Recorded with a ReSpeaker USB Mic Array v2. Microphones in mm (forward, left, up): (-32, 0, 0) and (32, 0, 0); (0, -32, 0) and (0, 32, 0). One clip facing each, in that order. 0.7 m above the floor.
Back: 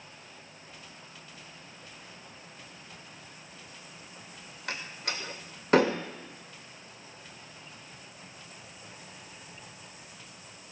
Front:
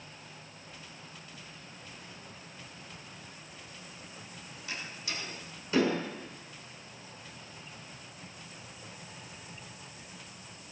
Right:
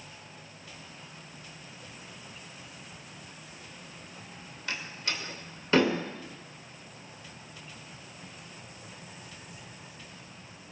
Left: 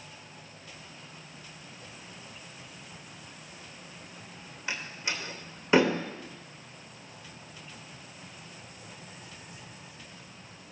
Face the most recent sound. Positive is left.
turn(degrees=160)